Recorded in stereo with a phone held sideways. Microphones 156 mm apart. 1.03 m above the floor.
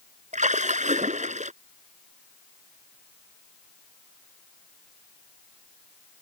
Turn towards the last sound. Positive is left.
turn(degrees=-50)  # may be behind; listen again after turning